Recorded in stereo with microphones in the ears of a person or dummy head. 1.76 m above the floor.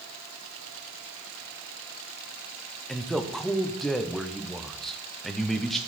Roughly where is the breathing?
I don't hear breathing.